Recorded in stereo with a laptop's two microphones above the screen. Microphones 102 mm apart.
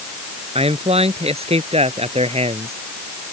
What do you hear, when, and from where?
0.6 s a man speaking: 75° right (ahead or behind); by 2.7 s 80° right